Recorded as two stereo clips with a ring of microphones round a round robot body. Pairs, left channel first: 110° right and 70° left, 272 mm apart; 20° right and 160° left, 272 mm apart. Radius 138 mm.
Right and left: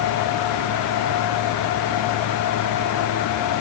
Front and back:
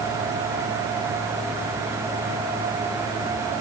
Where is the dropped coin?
No dropped coin in this recording.